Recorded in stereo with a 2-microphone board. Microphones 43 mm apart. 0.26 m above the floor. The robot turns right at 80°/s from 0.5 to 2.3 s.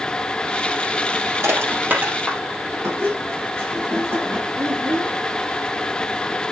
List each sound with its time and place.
1.4 s crushing: 80° right, 4 m; by 2.4 s 15° right (ahead or behind), 4 m
2.8 s a squeak: 65° right (ahead or behind), 4.5 m
4.6 s a child speaking: 60° right (ahead or behind), 2 m